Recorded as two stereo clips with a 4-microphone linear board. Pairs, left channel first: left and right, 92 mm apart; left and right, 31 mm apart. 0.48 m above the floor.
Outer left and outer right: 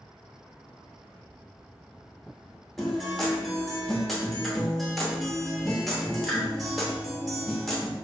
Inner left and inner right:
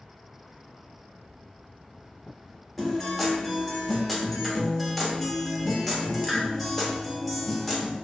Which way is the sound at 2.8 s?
Centre (ahead or behind).